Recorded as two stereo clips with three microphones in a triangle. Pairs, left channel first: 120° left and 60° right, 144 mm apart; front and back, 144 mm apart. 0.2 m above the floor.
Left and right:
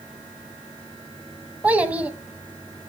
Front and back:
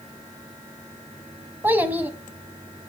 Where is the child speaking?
125° right, 0.8 m.